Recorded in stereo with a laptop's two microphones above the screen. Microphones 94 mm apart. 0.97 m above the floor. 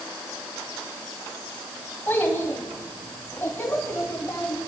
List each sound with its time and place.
2.1 s a child speaking: 20° left (ahead or behind), 4.5 m; by 4.6 s 25° left (ahead or behind), 6 m